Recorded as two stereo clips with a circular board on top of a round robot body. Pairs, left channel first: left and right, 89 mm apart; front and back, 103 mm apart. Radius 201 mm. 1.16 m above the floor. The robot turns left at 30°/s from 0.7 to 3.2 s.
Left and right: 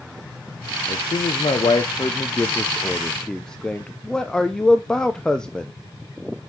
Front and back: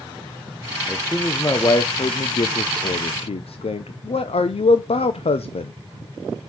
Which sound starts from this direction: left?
A man speaking, at 0.9 s.